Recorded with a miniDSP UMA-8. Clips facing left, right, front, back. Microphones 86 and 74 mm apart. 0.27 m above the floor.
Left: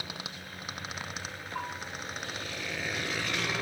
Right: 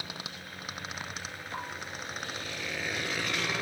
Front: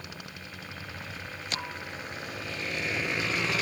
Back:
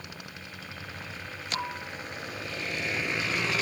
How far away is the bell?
About 6 m.